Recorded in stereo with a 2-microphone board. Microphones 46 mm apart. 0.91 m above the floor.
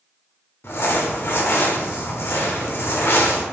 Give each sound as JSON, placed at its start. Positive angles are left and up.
{"t": 0.6, "sound": "crumpling", "side_deg": 60, "distance_m": 0.9}